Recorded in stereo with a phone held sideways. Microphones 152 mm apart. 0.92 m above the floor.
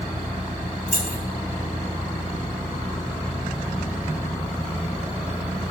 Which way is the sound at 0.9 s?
70° left (ahead or behind).